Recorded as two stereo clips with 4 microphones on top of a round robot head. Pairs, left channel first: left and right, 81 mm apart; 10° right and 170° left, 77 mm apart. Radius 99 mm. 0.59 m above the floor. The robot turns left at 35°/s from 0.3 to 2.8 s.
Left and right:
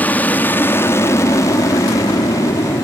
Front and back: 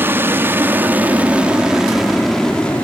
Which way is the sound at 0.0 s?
140° left.